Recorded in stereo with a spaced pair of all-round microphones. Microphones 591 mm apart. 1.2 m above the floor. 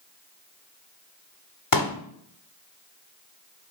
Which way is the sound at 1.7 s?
35° left (ahead or behind).